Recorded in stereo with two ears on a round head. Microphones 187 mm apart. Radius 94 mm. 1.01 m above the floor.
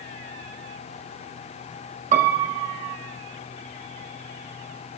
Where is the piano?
35° right (ahead or behind), 0.5 m.